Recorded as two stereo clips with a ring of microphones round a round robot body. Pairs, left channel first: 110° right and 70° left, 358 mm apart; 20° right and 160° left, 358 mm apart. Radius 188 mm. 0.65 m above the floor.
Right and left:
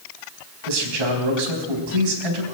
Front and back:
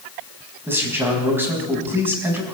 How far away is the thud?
No thud in this recording.